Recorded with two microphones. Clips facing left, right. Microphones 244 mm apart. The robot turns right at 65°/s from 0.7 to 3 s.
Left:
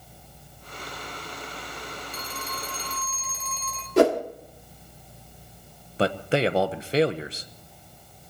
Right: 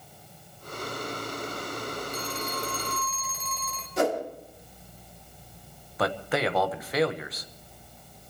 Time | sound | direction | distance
2.1 | a phone ringing | 125° left | 4 m
4.0 | a whoosh | 70° left (ahead or behind) | 1.5 m
6.0 | a man speaking | 30° left (ahead or behind) | 1.1 m